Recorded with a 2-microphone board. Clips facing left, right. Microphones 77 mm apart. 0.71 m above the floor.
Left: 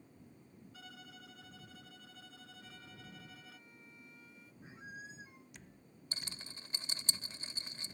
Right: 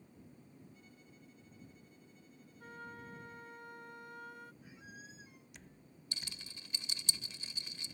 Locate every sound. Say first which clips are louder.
0.7 s a violin: left 5 dB; 75° left (ahead or behind)
2.6 s a flute: right 9 dB; 60° right (ahead or behind)
4.6 s a squeak: left 4 dB; 30° left (ahead or behind)
6.1 s a rattle: left 1 dB; 35° left (ahead or behind)